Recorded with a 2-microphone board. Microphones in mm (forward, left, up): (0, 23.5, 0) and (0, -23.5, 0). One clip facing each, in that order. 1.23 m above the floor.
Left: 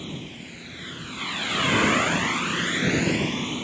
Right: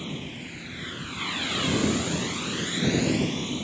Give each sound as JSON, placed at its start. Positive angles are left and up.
{"t": 0.0, "sound": "a vehicle", "side_deg": -15}